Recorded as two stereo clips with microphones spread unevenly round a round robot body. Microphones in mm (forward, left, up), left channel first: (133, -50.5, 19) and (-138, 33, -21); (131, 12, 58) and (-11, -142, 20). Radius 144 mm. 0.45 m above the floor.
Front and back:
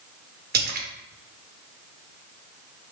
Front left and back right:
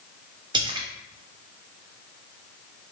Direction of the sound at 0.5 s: 175° right.